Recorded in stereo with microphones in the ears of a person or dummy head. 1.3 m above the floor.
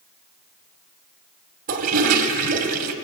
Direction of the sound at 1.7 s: 45° right (ahead or behind).